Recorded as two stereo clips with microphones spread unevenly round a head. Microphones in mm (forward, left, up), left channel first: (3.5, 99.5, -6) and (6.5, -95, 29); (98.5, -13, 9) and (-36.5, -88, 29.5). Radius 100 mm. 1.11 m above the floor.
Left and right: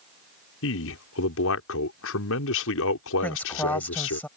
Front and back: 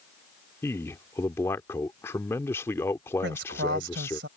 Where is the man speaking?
110° left.